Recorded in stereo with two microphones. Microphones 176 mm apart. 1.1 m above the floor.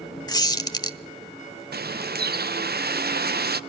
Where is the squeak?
25° left (ahead or behind), 0.9 m.